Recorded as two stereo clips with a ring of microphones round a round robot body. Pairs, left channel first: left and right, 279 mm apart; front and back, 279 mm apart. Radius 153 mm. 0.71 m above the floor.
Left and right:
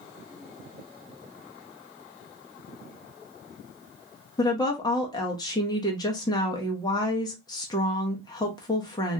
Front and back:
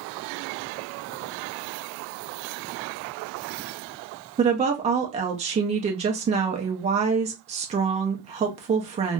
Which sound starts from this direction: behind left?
A woman speaking, at 4.4 s.